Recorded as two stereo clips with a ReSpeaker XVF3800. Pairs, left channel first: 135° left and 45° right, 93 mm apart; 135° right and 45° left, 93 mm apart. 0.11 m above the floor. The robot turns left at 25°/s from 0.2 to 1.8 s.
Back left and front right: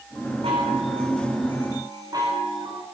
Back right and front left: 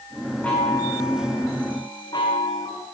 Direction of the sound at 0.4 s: 60° right.